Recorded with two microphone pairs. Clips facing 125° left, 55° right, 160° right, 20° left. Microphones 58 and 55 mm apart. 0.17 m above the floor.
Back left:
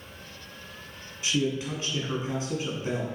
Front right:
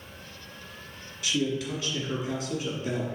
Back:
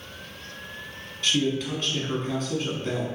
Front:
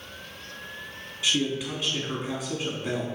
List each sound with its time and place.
1.2 s a man speaking: 95° left, 1.3 m